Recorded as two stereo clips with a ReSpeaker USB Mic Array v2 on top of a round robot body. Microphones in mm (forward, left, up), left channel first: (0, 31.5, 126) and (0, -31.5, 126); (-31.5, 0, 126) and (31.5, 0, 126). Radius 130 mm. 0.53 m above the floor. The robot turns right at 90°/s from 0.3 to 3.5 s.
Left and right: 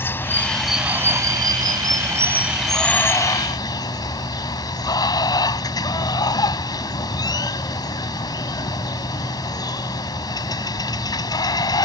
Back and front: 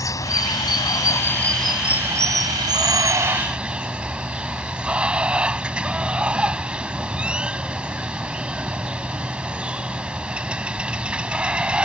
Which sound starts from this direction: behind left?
Running water, at 0.0 s.